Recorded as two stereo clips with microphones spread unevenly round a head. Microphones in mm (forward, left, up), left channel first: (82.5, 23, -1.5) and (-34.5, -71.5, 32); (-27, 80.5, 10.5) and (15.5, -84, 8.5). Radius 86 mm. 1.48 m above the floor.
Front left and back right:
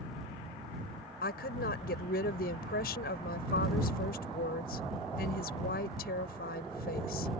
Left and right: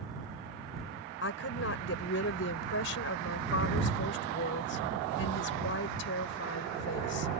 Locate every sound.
1.2 s a woman speaking: 80° left